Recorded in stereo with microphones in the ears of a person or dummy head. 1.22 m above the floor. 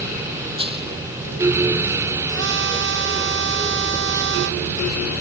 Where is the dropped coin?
25° right (ahead or behind).